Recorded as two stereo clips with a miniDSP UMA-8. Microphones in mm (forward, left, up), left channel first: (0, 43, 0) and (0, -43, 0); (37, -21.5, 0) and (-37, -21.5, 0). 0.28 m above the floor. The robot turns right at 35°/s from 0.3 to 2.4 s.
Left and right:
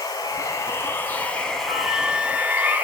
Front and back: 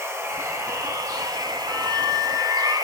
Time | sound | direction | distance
0.0 | running water | 130° left | 1.2 m
1.7 | a flute | 155° right | 1.6 m